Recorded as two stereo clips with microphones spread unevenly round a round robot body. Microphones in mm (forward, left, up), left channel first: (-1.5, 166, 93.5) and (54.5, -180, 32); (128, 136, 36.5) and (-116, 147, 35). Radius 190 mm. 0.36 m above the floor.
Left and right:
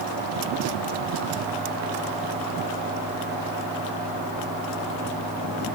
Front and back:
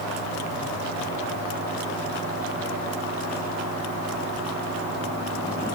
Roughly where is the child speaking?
No child speaking in this recording.